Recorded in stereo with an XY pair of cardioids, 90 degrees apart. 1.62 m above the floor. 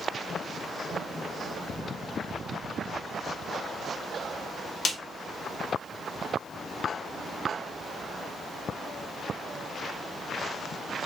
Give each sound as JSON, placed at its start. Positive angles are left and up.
{"t": 4.8, "sound": "a snare drum", "azimuth_deg": 55, "distance_m": 0.9}